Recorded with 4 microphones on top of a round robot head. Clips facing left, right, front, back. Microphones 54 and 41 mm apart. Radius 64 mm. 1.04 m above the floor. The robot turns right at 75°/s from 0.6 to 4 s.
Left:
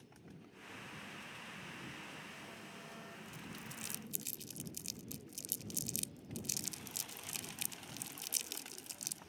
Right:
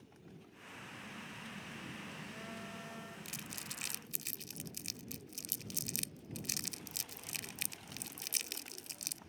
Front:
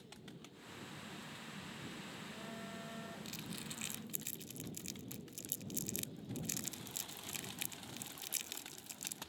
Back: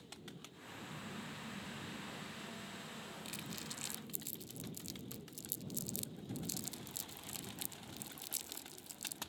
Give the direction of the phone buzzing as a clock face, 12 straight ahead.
6 o'clock.